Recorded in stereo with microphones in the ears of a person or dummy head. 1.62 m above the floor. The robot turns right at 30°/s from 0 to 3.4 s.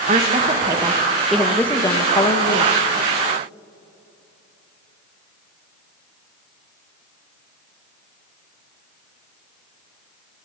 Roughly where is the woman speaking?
Ahead right.